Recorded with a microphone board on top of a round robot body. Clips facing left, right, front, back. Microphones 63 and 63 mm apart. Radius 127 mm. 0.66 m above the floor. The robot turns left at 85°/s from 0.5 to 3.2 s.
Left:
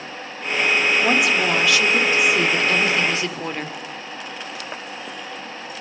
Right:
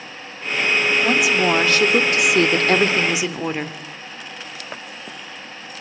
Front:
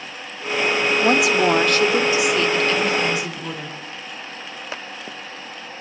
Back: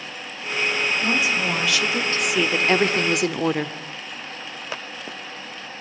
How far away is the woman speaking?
About 2 m.